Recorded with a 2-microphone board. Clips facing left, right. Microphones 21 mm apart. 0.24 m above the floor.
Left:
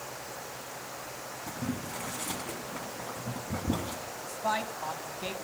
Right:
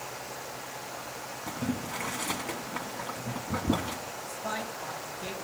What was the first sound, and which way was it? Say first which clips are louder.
Boiling: right 3 dB; 40° right (ahead or behind).